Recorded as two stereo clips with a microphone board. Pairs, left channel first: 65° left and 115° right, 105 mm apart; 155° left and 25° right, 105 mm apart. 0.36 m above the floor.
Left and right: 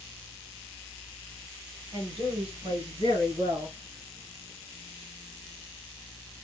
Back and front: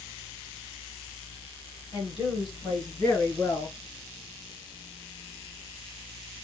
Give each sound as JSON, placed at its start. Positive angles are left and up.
{"t": 1.9, "sound": "a woman speaking", "azimuth_deg": -160, "distance_m": 2.5}